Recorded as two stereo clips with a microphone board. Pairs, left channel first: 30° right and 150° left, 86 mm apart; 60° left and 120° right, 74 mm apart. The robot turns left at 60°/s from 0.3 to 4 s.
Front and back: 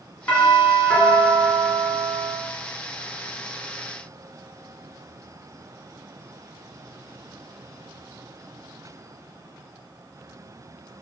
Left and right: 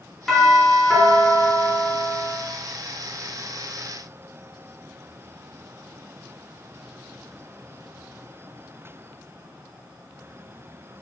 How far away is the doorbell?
About 1.4 m.